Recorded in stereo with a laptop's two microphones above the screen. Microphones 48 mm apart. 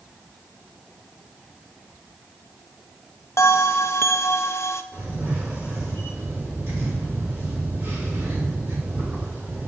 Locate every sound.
3.4 s a bell: 70° left (ahead or behind), 0.6 m
4.9 s a camera shutter: 80° right, 4 m